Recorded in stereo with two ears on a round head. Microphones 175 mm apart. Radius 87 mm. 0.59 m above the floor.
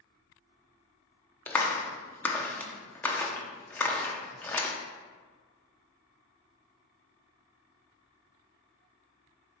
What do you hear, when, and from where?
1.5 s a clap: 10° left (ahead or behind), 0.7 m